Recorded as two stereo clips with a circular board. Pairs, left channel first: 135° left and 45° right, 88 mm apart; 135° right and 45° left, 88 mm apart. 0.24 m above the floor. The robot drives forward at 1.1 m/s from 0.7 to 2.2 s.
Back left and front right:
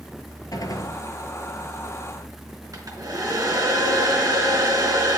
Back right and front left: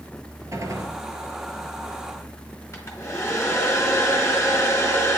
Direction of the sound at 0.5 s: 95° left.